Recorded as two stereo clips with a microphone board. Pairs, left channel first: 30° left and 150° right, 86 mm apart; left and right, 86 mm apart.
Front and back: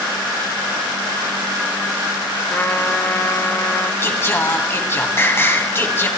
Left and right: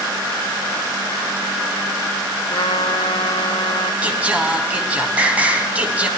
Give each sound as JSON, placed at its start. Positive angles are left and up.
{"t": 2.5, "sound": "a trumpet", "azimuth_deg": 95, "distance_m": 0.9}
{"t": 4.0, "sound": "singing", "azimuth_deg": -20, "distance_m": 1.8}